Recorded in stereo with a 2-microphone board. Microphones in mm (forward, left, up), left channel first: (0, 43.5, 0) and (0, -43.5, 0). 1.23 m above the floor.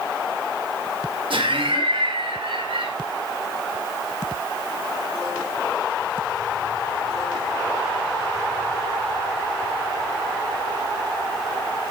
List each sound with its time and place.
1.3 s laughter: 75° right (ahead or behind), 1.8 m